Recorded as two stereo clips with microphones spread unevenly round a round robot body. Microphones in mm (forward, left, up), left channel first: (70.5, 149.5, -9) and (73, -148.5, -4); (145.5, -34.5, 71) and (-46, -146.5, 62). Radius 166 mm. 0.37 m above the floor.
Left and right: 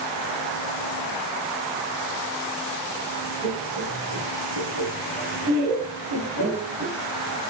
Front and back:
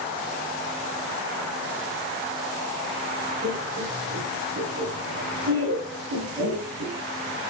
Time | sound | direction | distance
3.4 | laughter | 110° right | 5 m